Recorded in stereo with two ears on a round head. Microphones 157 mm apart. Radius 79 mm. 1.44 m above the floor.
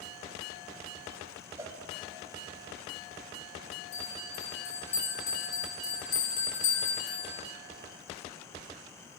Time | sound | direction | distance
1.6 | a cowbell | 15° right (ahead or behind) | 0.5 m
3.9 | a bell | 45° left (ahead or behind) | 3 m